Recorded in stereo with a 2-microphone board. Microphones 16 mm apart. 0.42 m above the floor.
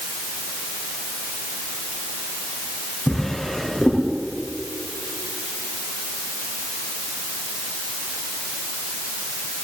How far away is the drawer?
About 10 m.